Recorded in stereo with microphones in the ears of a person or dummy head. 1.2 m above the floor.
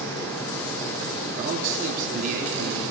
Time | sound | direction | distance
1.4 | a man speaking | 50° right (ahead or behind) | 2.5 m